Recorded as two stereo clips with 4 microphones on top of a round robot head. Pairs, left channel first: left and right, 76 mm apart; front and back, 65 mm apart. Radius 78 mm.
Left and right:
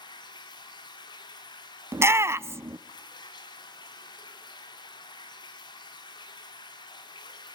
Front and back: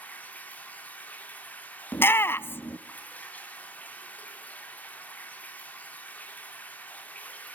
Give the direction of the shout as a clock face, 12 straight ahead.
1 o'clock.